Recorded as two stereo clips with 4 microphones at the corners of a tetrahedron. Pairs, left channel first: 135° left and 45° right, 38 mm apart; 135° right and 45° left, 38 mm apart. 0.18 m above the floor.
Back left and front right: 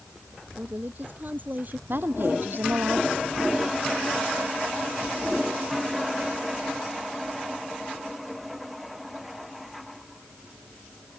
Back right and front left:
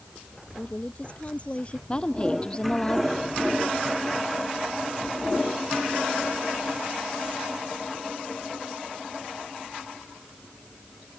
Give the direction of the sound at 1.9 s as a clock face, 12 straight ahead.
2 o'clock.